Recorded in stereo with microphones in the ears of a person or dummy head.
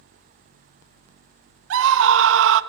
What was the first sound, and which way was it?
A scream, 60° right (ahead or behind).